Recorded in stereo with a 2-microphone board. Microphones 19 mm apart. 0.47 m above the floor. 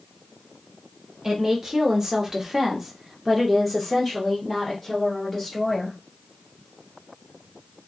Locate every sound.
1.2 s a woman speaking: 30° right (ahead or behind), 1.2 m; by 6.0 s 10° left (ahead or behind), 1.7 m